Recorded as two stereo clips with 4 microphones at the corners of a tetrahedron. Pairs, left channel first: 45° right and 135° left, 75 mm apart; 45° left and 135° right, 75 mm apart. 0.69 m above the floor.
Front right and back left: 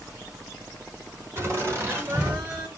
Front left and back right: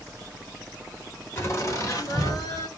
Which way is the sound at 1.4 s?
90° left.